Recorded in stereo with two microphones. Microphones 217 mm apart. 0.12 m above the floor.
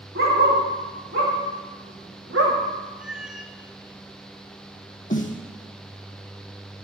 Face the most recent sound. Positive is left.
turn(degrees=35)  # may be behind; listen again after turning